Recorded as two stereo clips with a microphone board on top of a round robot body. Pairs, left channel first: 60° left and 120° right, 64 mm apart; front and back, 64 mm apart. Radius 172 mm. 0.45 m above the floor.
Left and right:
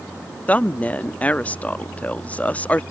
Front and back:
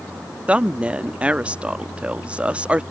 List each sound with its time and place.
0.5 s a woman speaking: 115° left